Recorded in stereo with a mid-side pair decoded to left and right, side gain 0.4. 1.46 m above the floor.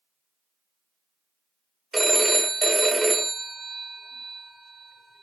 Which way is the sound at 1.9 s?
25° right.